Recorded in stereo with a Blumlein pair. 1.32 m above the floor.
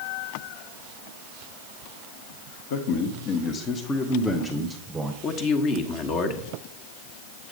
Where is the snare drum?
No snare drum in this recording.